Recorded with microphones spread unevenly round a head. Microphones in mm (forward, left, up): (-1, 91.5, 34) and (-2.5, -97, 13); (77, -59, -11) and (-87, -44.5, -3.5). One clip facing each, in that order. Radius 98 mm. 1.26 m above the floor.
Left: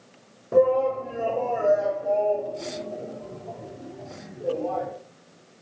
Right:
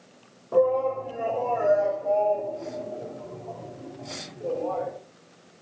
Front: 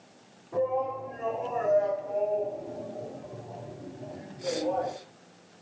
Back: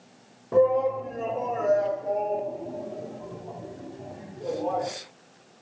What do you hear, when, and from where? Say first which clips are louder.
0.5 s a shout: left 2 dB, back 8 dB; 155° left, 2.0 m; by 4.9 s 165° left, 5 m